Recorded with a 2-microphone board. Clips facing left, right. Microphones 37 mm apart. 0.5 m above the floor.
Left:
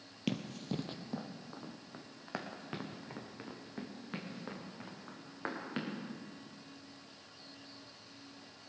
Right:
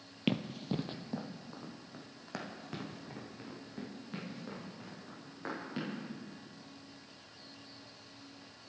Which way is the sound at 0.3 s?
25° right (ahead or behind).